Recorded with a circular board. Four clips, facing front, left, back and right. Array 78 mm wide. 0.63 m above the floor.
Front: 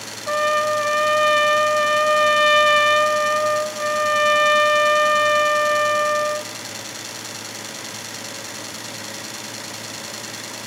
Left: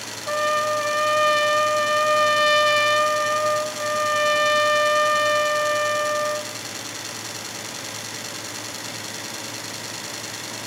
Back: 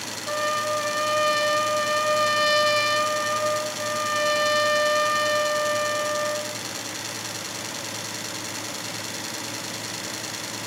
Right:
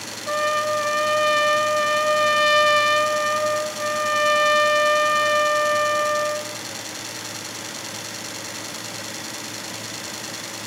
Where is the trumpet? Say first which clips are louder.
Even, front 6 dB; 5° left, 1.0 m.